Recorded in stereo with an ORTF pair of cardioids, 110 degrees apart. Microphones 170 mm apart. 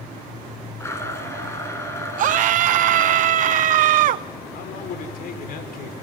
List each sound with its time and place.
0.8 s a blender: 15° left, 6.5 m
2.2 s a scream: 60° right, 0.8 m
4.5 s a man speaking: 60° left, 5 m